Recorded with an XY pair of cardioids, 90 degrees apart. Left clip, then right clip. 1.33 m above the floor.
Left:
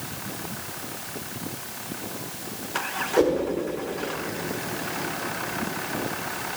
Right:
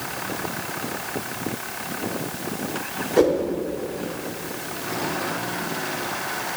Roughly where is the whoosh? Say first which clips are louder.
Right 3 dB; ahead.